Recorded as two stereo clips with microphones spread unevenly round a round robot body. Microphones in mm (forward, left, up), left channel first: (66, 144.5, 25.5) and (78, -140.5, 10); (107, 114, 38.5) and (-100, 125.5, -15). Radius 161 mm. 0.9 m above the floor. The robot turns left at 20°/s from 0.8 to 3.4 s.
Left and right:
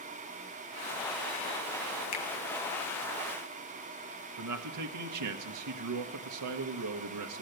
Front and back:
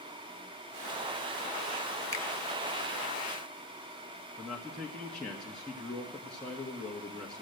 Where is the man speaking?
95° right, 1.0 m.